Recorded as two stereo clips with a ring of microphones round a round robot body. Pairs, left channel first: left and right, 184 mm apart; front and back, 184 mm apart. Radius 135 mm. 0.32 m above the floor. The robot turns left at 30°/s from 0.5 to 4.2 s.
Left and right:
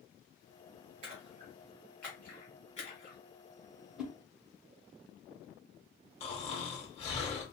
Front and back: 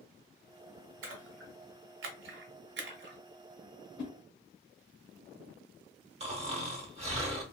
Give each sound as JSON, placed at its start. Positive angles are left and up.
{"t": 1.0, "sound": "a splash", "azimuth_deg": -155, "distance_m": 0.8}
{"t": 4.0, "sound": "a whoosh", "azimuth_deg": 0, "distance_m": 0.9}
{"t": 6.2, "sound": "snoring", "azimuth_deg": 140, "distance_m": 1.0}